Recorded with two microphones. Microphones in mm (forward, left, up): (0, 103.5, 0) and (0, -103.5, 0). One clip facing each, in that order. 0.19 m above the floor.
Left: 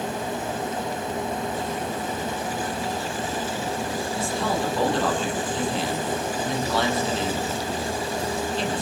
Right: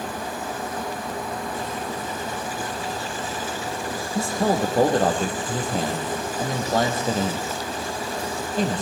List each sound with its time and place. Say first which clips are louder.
4.2 s a man speaking: right 6 dB; 45° right (ahead or behind), 5.5 m